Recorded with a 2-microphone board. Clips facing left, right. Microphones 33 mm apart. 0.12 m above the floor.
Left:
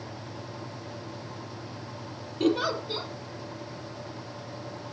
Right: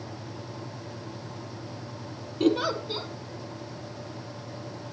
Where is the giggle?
Centre (ahead or behind), 3 m.